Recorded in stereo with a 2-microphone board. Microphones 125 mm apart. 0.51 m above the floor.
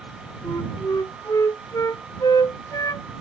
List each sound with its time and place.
0.4 s a flute: 30° left (ahead or behind)